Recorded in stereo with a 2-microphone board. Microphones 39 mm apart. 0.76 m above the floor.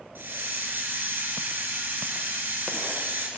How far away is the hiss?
About 2.5 m.